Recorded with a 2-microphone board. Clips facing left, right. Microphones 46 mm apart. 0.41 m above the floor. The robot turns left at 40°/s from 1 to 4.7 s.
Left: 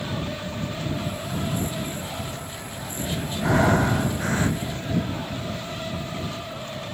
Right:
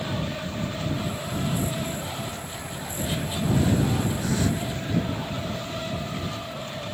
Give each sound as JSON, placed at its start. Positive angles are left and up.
{"t": 3.4, "sound": "breathing", "azimuth_deg": 75}